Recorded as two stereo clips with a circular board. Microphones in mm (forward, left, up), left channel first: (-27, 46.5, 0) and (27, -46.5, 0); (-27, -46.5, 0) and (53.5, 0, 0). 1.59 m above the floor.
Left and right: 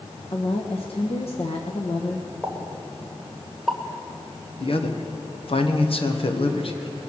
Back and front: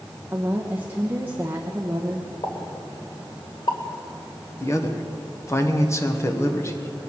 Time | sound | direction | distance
0.3 | a woman speaking | 100° left | 1.2 m
2.4 | a pop | 150° right | 2.0 m
4.6 | a man speaking | 150° left | 1.4 m